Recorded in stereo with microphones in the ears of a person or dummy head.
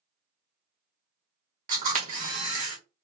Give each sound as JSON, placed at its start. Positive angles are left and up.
{"t": 1.7, "sound": "a camera shutter", "side_deg": -30, "distance_m": 1.3}